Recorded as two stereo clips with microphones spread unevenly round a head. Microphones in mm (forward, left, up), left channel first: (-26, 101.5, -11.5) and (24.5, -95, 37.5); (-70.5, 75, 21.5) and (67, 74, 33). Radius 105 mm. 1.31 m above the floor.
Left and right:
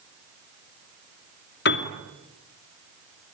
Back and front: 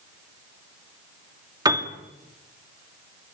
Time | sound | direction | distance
1.6 | a piano | 65° left | 2 m